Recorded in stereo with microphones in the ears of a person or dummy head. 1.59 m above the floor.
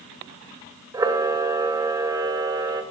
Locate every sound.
0.9 s a camera shutter: 20° right (ahead or behind), 1.1 m